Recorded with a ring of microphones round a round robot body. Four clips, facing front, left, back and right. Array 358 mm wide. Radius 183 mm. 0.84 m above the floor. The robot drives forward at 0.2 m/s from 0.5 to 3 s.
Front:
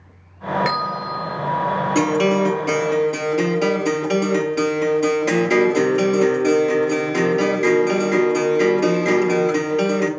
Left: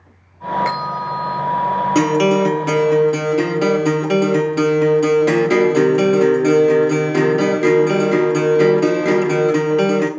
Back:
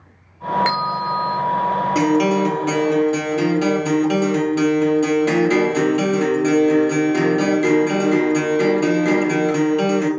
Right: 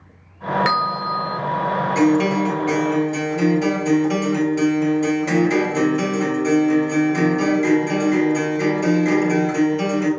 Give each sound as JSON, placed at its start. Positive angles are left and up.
{"t": 0.7, "sound": "a bell", "azimuth_deg": -100, "distance_m": 1.7}
{"t": 1.9, "sound": "a guitar", "azimuth_deg": 90, "distance_m": 1.2}